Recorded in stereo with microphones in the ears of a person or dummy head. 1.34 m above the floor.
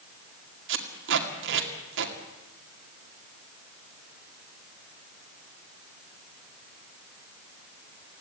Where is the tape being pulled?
75° right (ahead or behind), 2.5 m.